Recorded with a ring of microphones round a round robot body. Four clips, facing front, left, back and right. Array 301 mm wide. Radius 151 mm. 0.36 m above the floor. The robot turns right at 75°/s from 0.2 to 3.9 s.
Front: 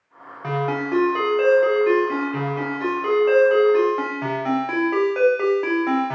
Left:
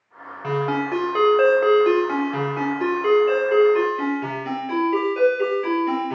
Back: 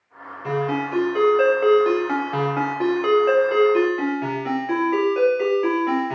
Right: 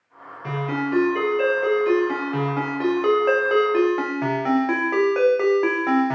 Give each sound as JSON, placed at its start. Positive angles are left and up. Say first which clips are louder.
{"t": 0.4, "sound": "a ringtone", "louder": "left 3 dB, even", "azimuth_deg": 35, "distance_m": 0.8}